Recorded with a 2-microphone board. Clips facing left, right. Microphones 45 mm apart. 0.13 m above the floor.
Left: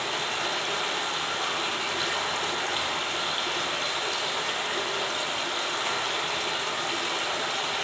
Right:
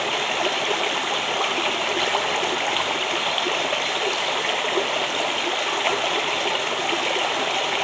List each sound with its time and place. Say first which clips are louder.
0.0 s running water: right 6 dB; 55° right (ahead or behind), 0.8 m